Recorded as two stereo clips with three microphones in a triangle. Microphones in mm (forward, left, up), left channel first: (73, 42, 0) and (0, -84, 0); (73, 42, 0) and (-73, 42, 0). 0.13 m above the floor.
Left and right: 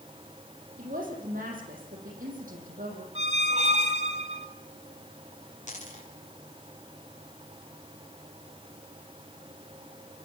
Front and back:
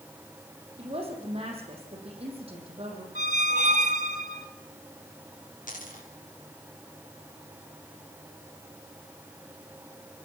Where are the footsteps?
No footsteps in this recording.